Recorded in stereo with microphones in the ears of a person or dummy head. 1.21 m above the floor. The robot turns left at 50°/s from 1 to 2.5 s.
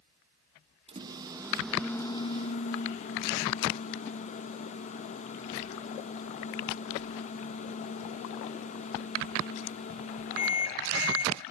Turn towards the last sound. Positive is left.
turn(degrees=140)